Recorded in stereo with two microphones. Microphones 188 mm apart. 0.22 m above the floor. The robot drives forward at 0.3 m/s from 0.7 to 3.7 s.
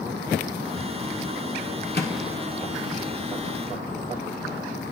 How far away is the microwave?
About 1.7 m.